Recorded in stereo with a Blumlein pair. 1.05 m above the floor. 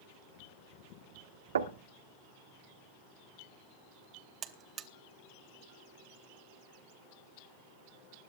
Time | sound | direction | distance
1.6 | knocking | 65° right | 1.5 m
4.4 | a buzzer | 30° right | 1.0 m